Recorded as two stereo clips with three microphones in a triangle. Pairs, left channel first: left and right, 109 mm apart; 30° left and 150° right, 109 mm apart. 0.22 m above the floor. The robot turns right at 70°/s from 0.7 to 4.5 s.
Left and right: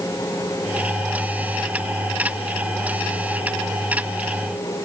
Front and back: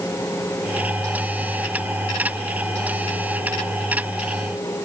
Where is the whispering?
No whispering in this recording.